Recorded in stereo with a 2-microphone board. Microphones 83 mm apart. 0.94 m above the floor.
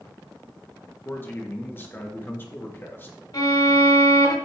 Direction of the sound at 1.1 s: 25° left (ahead or behind).